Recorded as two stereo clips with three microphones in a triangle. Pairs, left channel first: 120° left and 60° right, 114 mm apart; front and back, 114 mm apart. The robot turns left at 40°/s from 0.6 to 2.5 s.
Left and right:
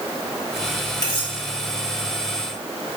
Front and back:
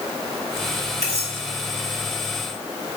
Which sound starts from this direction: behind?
Cutlery clinking, at 1.0 s.